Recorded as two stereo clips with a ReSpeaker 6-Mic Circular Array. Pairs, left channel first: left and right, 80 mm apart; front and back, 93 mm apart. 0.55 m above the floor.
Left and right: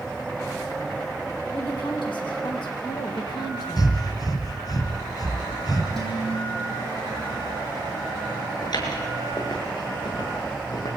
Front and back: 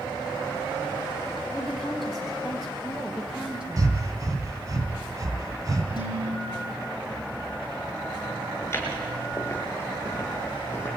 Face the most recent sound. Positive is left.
turn(degrees=60)